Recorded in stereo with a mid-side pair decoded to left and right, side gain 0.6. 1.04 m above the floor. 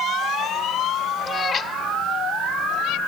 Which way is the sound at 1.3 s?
25° left.